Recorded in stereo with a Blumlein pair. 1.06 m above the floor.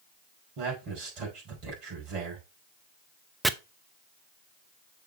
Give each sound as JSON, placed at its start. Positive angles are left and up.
{"t": 0.6, "sound": "a man speaking", "azimuth_deg": -45, "distance_m": 4.5}
{"t": 3.4, "sound": "chopping", "azimuth_deg": -5, "distance_m": 0.6}